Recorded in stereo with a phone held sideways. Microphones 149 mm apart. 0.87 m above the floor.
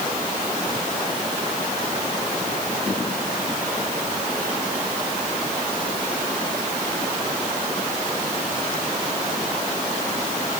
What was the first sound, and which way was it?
Only background noise.